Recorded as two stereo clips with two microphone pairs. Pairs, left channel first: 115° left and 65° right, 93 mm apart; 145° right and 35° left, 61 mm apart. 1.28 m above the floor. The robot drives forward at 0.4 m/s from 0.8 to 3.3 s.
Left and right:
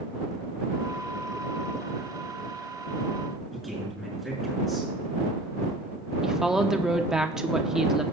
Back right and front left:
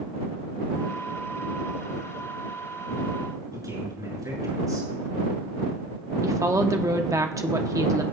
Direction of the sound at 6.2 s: 20° left.